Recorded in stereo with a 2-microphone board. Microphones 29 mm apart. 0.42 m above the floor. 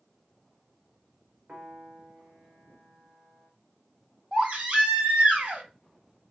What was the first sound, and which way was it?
A piano, 35° right (ahead or behind).